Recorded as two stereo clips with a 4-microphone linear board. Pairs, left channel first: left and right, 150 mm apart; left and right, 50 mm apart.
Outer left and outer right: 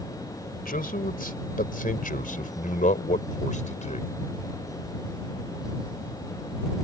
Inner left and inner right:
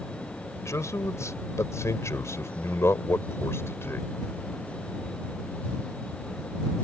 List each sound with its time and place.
0.6 s a man speaking: 75° left (ahead or behind); by 4.1 s 55° left (ahead or behind)